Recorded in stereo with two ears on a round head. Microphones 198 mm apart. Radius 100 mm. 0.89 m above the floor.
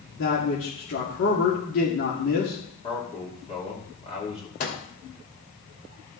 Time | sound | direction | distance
0.2 | a man speaking | 60° left (ahead or behind) | 2.5 m
2.8 | a man speaking | 30° left (ahead or behind) | 2.5 m
4.6 | a microwave | 45° left (ahead or behind) | 2.5 m